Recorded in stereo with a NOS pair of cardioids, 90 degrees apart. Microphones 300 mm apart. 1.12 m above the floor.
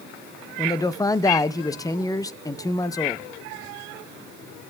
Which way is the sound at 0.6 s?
10° left.